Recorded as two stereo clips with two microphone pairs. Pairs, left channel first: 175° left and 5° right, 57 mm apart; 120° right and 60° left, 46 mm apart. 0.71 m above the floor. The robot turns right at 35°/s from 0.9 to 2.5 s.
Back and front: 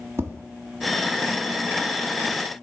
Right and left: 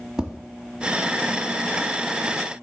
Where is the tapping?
15° right, 1.4 m.